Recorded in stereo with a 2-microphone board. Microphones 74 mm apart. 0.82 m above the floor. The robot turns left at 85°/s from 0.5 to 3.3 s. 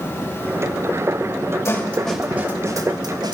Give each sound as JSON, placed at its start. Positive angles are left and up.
{"t": 1.6, "sound": "a snare drum", "side_deg": 45, "distance_m": 2.0}